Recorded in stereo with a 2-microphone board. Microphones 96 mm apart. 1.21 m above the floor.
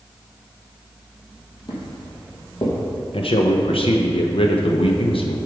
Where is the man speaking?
65° left (ahead or behind), 0.6 m.